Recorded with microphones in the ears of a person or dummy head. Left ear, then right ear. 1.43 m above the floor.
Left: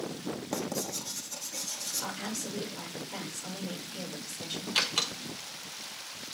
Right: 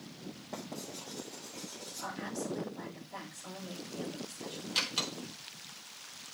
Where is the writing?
65° left (ahead or behind), 1.8 m.